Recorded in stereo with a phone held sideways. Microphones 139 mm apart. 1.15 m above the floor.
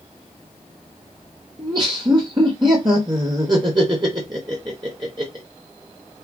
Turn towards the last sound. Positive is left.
turn(degrees=-30)  # may be behind; listen again after turning